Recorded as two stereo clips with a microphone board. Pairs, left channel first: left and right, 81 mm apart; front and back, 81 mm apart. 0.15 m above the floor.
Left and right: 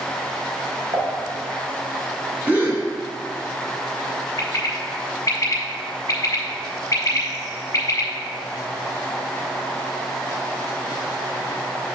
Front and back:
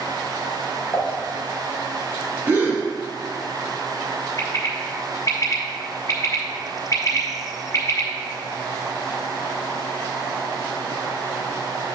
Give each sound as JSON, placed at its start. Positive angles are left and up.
{"t": 0.9, "sound": "dishes clattering", "azimuth_deg": -70, "distance_m": 3.0}
{"t": 2.5, "sound": "a gasp", "azimuth_deg": -140, "distance_m": 1.7}
{"t": 4.4, "sound": "a bird", "azimuth_deg": 45, "distance_m": 1.3}